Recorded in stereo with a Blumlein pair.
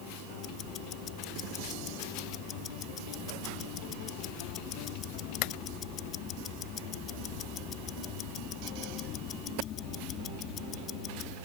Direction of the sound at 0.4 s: 30° left.